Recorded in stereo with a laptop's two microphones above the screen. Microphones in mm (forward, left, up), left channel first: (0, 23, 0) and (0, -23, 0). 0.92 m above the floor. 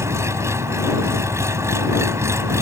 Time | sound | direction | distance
0.0 | an engine running | 85° right | ?